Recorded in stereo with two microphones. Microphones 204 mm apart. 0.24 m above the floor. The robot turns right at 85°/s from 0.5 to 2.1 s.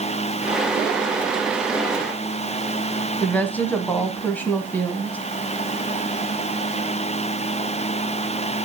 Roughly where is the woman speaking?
Centre.